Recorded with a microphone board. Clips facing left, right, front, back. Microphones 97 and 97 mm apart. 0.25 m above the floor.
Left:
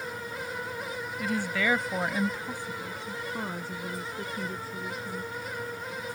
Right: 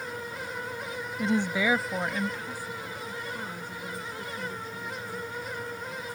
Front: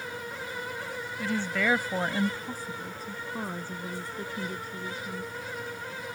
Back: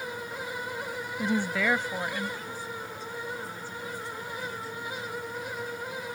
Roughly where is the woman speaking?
Behind right.